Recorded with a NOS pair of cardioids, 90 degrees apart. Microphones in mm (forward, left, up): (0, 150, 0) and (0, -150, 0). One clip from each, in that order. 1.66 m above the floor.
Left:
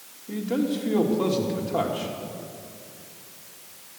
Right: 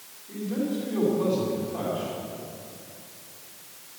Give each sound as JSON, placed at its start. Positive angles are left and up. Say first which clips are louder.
{"t": 0.3, "sound": "a man speaking", "louder": "left 4 dB", "azimuth_deg": 70, "distance_m": 2.5}